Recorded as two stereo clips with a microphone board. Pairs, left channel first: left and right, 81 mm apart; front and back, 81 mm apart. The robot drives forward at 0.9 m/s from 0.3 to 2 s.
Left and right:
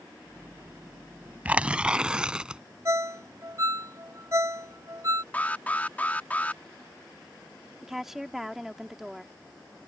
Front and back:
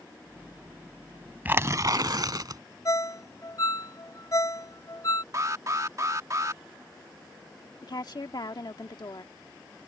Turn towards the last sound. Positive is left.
turn(degrees=-5)